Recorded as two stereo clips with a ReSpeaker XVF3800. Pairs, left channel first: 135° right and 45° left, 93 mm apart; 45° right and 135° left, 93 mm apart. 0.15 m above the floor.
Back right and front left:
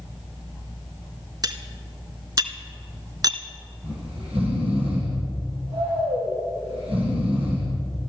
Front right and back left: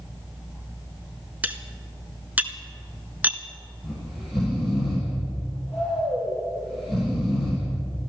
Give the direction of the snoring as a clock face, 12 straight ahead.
10 o'clock.